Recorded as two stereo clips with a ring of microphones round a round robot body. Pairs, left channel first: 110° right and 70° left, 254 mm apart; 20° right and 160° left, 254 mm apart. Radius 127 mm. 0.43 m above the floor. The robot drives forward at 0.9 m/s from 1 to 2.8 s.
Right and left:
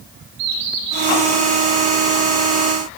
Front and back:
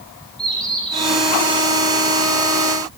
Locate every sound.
0.4 s a bird: 65° left, 5.5 m